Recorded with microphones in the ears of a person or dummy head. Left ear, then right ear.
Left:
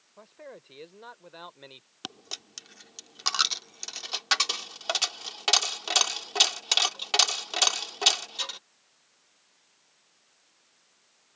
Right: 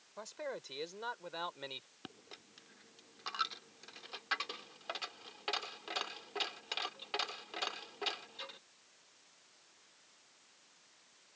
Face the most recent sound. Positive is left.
turn(degrees=60)  # may be behind; listen again after turning